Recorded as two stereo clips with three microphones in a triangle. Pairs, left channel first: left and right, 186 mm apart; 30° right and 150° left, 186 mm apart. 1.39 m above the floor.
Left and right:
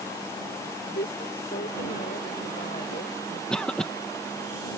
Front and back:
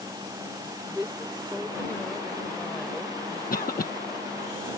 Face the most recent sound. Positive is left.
turn(degrees=5)